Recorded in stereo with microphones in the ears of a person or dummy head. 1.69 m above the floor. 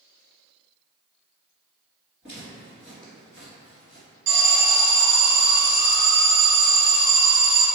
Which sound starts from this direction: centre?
Footsteps, at 2.2 s.